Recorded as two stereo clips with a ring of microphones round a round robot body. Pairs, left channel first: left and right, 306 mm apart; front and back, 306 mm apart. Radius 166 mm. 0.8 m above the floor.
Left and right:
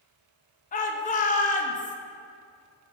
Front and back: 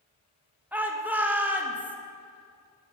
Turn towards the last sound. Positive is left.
turn(degrees=100)